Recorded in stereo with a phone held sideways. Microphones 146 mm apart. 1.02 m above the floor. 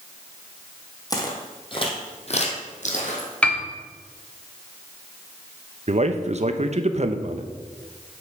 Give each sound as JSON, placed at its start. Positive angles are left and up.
{"t": 1.1, "sound": "footsteps", "side_deg": 25, "distance_m": 1.8}
{"t": 3.4, "sound": "a piano", "side_deg": 10, "distance_m": 1.2}
{"t": 5.9, "sound": "a man speaking", "side_deg": -50, "distance_m": 0.7}